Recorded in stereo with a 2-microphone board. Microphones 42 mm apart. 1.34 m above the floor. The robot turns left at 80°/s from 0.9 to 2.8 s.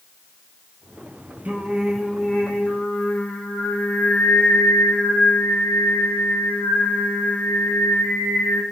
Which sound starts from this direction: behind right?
Singing, at 1.4 s.